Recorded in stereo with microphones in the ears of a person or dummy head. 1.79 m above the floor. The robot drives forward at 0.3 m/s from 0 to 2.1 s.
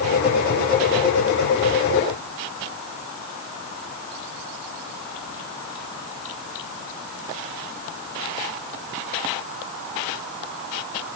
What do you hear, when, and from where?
Only background noise.